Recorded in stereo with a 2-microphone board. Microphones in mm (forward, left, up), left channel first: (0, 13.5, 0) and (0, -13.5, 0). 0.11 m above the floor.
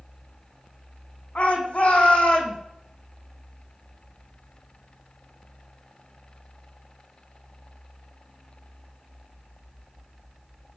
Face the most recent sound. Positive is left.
turn(degrees=70)  # may be behind; listen again after turning